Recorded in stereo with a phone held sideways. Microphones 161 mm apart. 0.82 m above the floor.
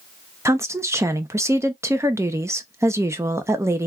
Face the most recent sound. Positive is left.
turn(degrees=-20)  # may be behind; listen again after turning